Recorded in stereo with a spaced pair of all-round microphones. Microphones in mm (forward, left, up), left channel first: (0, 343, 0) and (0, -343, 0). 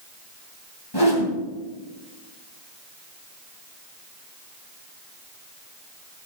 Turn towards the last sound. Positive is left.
turn(degrees=35)  # may be behind; listen again after turning